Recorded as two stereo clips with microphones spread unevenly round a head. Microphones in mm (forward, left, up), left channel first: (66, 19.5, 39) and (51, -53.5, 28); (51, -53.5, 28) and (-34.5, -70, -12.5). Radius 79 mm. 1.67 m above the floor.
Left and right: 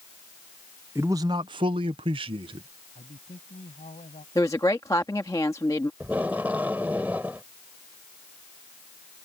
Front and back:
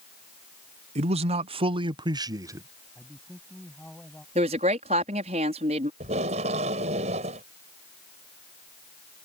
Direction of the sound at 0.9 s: Straight behind.